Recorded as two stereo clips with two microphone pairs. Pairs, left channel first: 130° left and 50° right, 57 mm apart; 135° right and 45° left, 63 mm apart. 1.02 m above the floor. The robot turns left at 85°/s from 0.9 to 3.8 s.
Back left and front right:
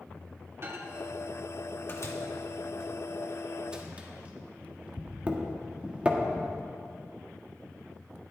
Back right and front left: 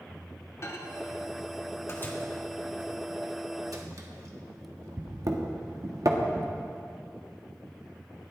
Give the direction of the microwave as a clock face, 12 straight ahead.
3 o'clock.